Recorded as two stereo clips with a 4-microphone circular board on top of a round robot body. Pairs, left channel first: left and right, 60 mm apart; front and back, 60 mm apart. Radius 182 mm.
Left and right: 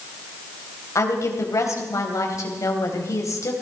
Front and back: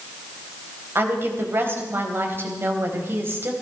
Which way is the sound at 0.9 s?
130° left.